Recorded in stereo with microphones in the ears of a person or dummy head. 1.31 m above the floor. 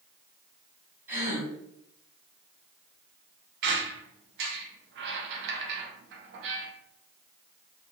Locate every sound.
1.1 s a gasp: 10° right (ahead or behind), 1.3 m
3.6 s a squeak: 65° right (ahead or behind), 0.5 m